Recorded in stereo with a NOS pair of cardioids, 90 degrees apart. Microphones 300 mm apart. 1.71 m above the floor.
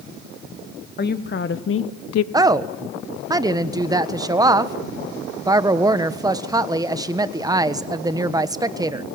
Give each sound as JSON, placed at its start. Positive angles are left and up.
{"t": 1.0, "sound": "a woman speaking", "azimuth_deg": 30, "distance_m": 2.0}
{"t": 2.3, "sound": "a woman speaking", "azimuth_deg": -15, "distance_m": 1.3}